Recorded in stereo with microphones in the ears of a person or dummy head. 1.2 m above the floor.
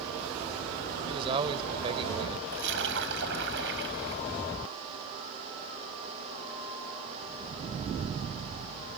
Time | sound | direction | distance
1.1 | a man speaking | 30° right (ahead or behind) | ?
2.5 | a splash | 70° right (ahead or behind) | ?